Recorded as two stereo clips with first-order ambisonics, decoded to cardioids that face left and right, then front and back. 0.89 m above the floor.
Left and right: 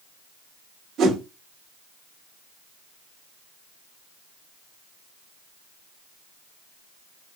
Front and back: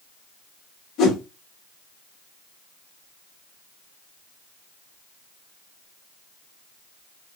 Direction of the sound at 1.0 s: 35° right.